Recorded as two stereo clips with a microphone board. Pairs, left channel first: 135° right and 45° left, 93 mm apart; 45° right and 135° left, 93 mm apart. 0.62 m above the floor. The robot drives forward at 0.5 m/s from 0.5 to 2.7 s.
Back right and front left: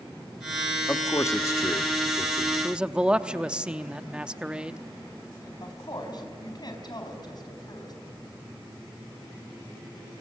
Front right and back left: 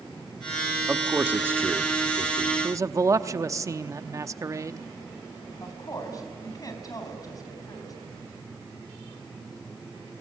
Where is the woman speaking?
95° right, 4 m.